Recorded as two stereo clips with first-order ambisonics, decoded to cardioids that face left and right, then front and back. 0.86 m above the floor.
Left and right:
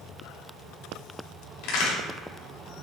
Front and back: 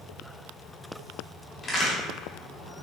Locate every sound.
1.6 s a crack: 70° left, 2.5 m